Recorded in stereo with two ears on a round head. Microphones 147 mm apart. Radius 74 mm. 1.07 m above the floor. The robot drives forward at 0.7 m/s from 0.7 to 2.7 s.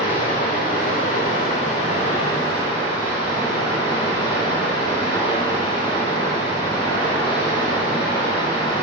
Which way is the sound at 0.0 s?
50° left (ahead or behind).